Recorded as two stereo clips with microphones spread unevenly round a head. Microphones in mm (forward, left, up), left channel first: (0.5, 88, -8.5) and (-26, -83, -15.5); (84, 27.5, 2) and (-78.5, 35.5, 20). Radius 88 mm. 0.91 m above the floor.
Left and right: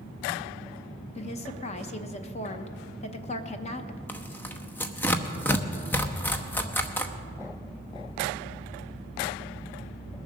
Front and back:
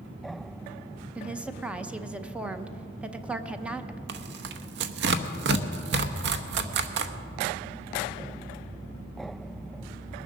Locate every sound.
1.1 s a woman speaking: 90° left, 0.8 m
4.1 s tearing paper: 160° left, 0.8 m